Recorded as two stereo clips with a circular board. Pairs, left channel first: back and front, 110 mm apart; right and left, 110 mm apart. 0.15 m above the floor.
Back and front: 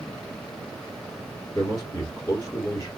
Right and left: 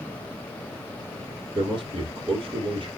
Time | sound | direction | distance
1.6 | a man speaking | 125° left | 3.5 m